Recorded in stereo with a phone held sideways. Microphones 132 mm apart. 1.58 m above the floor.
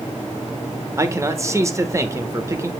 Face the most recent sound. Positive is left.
turn(degrees=-25)  # may be behind; listen again after turning